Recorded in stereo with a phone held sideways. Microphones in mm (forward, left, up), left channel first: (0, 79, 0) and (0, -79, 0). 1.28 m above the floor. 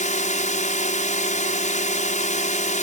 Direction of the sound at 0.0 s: 50° left (ahead or behind).